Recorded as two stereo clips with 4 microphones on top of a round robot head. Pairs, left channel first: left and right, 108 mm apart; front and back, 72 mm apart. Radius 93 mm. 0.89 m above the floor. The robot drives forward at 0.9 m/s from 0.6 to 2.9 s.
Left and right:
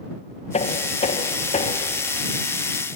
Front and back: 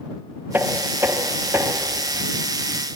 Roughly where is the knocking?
Behind left.